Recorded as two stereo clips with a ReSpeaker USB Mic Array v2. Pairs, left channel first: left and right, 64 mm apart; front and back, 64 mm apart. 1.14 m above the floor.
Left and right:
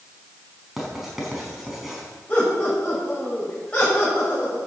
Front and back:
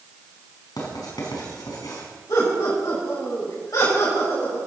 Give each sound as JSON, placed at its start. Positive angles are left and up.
{"t": 0.8, "sound": "writing", "azimuth_deg": -5, "distance_m": 4.5}
{"t": 2.3, "sound": "laughter", "azimuth_deg": 20, "distance_m": 5.5}